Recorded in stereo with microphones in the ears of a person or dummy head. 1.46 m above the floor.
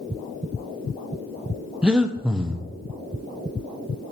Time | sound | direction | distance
1.8 | breathing | 5° right (ahead or behind) | 0.6 m